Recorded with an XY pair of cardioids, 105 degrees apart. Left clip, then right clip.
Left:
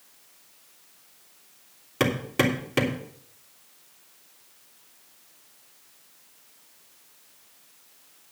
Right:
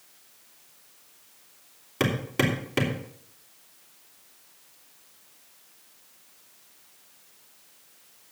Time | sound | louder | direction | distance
2.0 | hammering | left 2 dB | 10° left | 3 m